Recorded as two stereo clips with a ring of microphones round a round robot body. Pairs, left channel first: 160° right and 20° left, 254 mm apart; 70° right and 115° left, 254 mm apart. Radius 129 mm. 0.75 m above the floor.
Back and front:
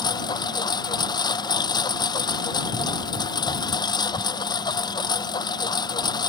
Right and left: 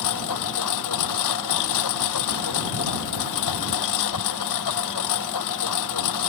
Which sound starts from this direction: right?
A lawn mower, at 0.0 s.